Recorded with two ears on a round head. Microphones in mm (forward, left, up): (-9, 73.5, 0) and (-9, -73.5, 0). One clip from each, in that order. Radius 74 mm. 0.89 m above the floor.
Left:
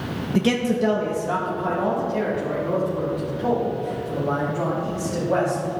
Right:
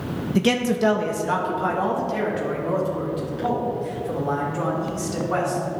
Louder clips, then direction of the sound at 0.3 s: Right 1 dB; 5° right (ahead or behind).